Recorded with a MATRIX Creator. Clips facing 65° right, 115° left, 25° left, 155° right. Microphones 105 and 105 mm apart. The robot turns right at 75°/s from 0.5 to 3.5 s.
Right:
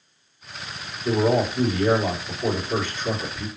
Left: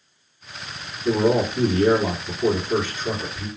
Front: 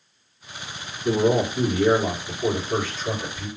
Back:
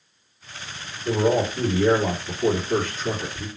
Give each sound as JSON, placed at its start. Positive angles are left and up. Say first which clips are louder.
{"t": 1.1, "sound": "a man speaking", "louder": "left 1 dB, front 1 dB", "azimuth_deg": 40, "distance_m": 1.9}